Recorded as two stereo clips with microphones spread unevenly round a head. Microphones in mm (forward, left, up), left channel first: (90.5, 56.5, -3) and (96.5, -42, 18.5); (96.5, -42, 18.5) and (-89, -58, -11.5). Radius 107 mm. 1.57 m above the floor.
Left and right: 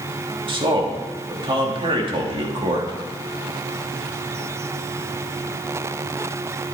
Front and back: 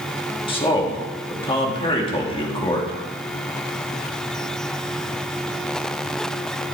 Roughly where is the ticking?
I don't hear ticking.